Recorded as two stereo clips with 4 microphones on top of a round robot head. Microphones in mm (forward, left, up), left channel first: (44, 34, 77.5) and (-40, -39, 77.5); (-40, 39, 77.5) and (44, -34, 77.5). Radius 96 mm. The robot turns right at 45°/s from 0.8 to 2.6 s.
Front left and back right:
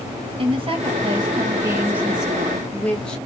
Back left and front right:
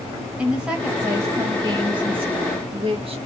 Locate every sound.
0.4 s a woman speaking: 120° right, 1.6 m; by 3.2 s 40° right, 1.6 m